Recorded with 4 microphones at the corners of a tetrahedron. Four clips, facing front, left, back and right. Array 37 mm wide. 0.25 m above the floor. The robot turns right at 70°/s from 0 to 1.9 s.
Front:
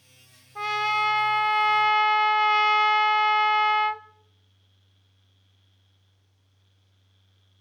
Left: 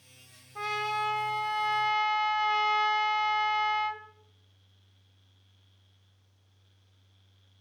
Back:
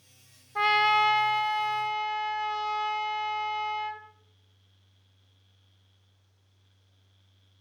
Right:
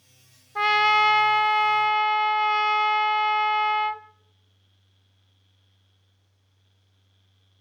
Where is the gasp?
No gasp in this recording.